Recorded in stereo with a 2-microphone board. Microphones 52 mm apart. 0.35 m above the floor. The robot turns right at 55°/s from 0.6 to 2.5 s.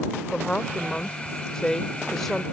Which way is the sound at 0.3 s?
20° left (ahead or behind).